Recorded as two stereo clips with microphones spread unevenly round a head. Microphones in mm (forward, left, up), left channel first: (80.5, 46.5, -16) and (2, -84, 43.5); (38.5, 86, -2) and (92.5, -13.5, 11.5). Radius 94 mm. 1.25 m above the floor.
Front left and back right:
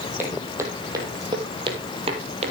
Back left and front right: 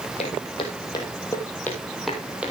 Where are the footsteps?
170° left, 2.5 m; by 2.5 s 135° right, 2 m.